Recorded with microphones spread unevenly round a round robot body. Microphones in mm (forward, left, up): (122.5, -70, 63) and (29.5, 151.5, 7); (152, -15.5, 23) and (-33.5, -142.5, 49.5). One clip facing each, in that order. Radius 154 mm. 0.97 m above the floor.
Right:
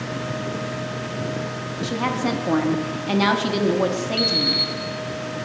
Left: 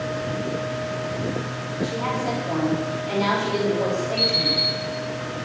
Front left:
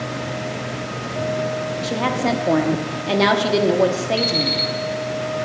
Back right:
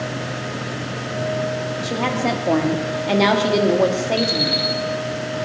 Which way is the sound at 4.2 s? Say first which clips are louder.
Right 2 dB, back right 1 dB; 30° right.